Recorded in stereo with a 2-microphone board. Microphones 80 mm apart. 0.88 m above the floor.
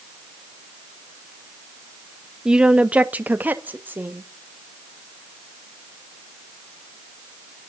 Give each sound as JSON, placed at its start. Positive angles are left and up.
{"t": 2.5, "sound": "a woman speaking", "side_deg": -10, "distance_m": 0.8}